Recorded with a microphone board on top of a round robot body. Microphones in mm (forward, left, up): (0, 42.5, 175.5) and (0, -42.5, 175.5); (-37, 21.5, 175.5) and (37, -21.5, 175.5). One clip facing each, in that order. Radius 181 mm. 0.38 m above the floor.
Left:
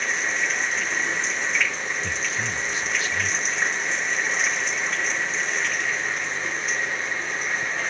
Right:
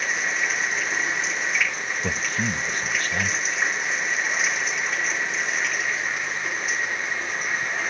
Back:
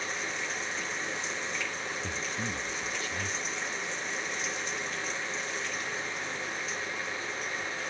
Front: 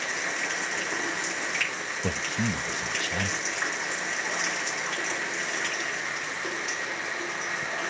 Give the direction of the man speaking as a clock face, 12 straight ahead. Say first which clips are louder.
Right 2 dB, front 6 dB; 2 o'clock.